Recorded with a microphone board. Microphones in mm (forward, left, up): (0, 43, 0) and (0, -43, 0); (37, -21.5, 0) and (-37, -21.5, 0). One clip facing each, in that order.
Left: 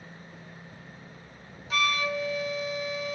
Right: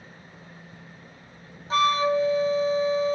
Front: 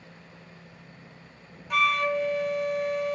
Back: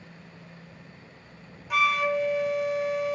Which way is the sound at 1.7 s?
95° right.